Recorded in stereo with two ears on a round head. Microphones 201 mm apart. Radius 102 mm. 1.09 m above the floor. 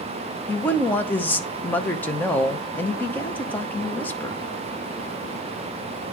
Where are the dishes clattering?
I don't hear dishes clattering.